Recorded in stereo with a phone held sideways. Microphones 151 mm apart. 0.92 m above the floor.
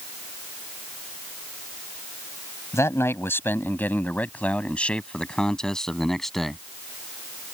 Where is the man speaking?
20° left (ahead or behind); by 6.6 s centre (ahead or behind).